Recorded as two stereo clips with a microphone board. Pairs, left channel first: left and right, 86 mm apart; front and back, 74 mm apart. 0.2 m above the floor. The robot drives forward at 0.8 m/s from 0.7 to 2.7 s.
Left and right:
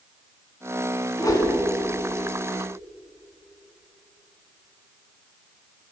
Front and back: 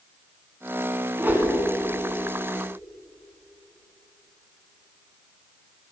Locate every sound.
1.2 s a whoosh: 120° left, 2 m; by 1.5 s 130° left, 2.5 m